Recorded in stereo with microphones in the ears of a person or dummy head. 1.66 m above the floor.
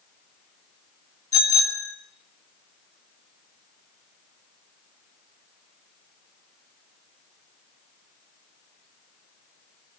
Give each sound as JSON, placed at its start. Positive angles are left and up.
{"t": 1.3, "sound": "a bicycle bell", "side_deg": 20, "distance_m": 5.0}